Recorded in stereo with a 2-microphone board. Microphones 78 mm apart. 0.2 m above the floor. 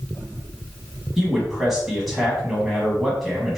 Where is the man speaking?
Centre (ahead or behind), 1.2 m.